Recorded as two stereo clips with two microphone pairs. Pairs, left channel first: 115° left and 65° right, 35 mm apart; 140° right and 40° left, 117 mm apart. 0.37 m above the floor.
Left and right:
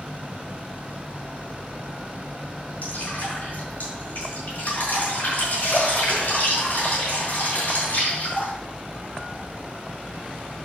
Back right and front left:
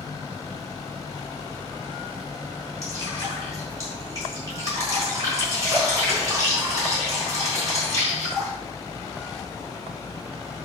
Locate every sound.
2.8 s dripping: 100° left, 5 m